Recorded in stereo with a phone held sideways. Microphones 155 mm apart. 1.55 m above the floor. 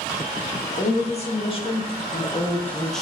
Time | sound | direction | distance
0.8 | a woman speaking | 45° left (ahead or behind) | 2.5 m